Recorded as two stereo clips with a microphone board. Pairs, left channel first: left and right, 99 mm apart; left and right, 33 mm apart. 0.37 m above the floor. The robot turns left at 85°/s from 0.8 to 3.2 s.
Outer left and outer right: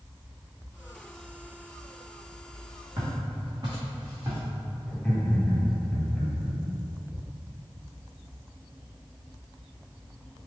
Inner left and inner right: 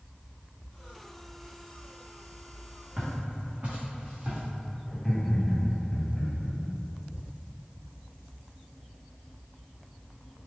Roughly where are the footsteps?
Right.